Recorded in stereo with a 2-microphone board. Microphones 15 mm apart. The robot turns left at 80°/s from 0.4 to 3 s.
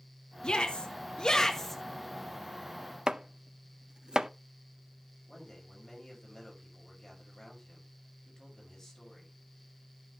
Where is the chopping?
50° right (ahead or behind), 0.5 m.